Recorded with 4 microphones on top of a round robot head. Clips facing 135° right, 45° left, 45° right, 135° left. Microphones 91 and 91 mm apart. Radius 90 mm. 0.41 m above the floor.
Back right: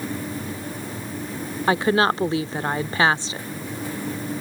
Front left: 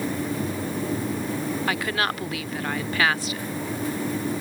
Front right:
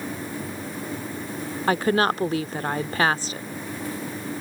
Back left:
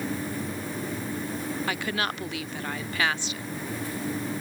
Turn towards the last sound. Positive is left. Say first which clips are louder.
# back right 12 dB, front right 13 dB
turn(degrees=-80)